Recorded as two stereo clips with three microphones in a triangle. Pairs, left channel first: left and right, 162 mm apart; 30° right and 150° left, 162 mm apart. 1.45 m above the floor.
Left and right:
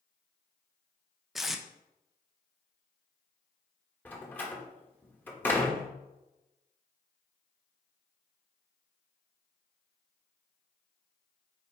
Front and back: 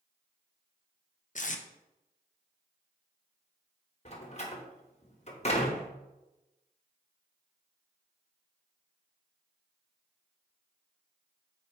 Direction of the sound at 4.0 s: 10° left.